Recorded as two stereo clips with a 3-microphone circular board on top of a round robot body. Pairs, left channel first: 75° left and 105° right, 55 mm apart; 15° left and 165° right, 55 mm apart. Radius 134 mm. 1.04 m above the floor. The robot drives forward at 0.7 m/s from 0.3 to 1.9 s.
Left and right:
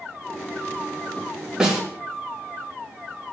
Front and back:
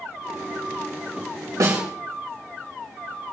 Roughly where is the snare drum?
Behind.